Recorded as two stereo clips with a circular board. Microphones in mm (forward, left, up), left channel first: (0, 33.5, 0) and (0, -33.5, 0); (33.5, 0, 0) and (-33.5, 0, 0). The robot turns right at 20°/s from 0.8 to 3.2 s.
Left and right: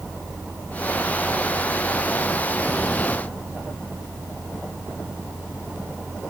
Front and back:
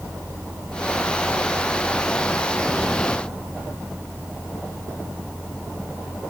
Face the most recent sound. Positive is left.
No sound to turn to.